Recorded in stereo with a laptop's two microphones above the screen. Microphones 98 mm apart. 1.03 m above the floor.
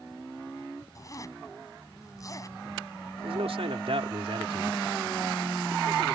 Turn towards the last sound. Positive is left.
turn(degrees=-75)  # may be behind; listen again after turning